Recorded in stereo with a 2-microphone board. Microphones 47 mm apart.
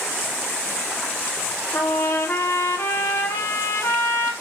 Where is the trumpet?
80° left, 3 m.